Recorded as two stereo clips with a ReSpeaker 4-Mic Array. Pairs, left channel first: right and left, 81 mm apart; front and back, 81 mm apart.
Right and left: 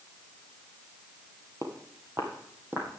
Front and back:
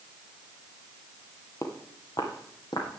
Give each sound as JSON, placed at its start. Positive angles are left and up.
{"t": 1.6, "sound": "footsteps", "azimuth_deg": 45, "distance_m": 1.6}